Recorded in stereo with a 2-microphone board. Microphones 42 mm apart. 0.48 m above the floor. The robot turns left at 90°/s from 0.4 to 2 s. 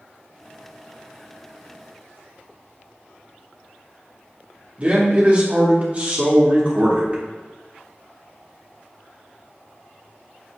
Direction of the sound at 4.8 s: 30° right (ahead or behind).